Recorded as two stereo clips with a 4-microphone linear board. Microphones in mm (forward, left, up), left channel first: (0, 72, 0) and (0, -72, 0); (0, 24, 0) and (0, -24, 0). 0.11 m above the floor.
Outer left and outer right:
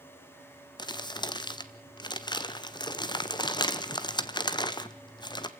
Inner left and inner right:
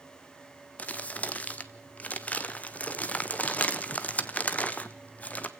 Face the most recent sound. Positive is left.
turn(degrees=30)  # may be behind; listen again after turning